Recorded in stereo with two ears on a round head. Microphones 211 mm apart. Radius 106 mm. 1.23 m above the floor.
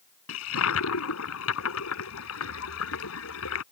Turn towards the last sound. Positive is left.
turn(degrees=75)  # may be behind; listen again after turning